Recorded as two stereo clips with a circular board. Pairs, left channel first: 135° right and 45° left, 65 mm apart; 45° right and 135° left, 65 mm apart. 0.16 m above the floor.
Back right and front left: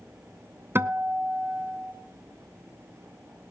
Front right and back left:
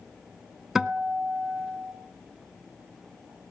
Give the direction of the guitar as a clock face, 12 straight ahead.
10 o'clock.